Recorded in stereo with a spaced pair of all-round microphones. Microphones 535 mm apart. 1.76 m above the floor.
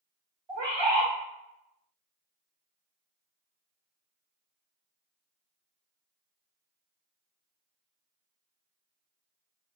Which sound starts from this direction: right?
A bird, at 0.5 s.